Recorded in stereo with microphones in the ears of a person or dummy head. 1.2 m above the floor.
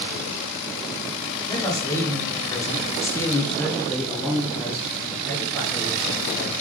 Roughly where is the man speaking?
Centre.